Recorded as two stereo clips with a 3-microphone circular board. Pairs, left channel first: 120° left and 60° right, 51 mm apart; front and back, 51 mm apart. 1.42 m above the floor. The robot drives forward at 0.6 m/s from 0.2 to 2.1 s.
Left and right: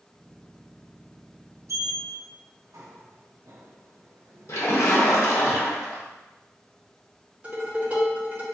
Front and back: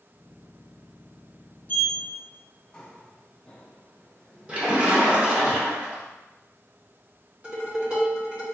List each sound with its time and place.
1.7 s a sliding door: 55° right, 0.7 m; by 5.5 s 75° right, 0.6 m
4.5 s a splash: 110° left, 0.9 m
7.4 s dishes clattering: 120° right, 1.7 m